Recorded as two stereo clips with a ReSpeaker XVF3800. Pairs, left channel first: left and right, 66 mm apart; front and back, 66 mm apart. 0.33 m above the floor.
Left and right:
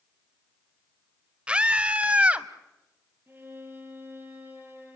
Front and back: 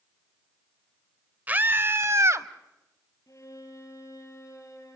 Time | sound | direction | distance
1.5 | a scream | 145° right | 0.9 m
3.3 | a violin | 35° right | 7 m